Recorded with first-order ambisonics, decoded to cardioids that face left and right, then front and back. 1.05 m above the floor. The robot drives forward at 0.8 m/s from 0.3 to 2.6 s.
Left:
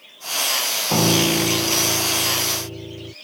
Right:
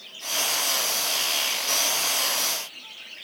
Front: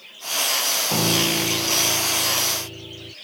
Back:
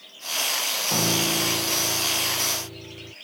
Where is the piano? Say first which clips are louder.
Left 6 dB, front 1 dB; 80° left; by 3.1 s 85° left.